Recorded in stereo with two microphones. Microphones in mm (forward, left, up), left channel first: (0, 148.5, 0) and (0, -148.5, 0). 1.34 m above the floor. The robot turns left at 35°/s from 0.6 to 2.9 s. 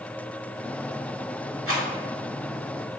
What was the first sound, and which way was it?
A rattle, 50° right (ahead or behind).